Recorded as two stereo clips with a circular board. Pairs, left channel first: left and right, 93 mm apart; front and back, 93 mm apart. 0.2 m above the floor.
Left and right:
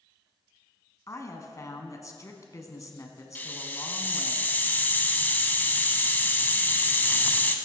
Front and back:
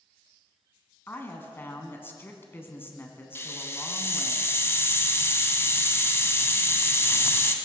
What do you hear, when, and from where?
1.1 s a woman speaking: 55° left, 1.4 m
3.4 s a hiss: 35° left, 0.8 m